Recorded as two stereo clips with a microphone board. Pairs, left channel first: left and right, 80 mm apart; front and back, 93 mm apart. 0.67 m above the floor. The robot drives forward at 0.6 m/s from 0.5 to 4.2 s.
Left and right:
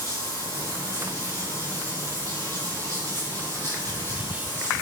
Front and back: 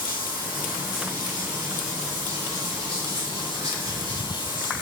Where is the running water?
135° left, 5.5 m; by 4.8 s 145° left, 7 m.